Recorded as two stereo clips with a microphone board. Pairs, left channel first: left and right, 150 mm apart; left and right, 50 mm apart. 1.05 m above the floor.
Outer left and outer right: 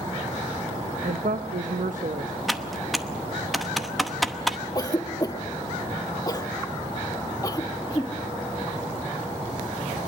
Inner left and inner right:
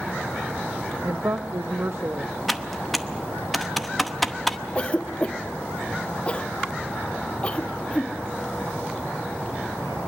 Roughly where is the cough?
Left.